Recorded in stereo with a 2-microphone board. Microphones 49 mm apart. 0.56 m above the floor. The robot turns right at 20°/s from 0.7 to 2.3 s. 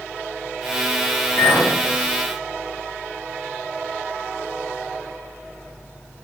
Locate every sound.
1.4 s a clink: 50° left (ahead or behind), 1.3 m; by 1.7 s 45° left (ahead or behind), 1.3 m